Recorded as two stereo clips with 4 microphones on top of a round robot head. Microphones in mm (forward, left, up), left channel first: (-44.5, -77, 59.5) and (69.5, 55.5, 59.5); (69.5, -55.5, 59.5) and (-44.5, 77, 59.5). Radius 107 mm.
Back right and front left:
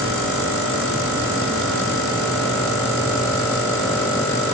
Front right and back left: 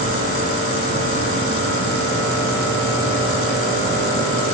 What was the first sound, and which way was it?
Only background noise.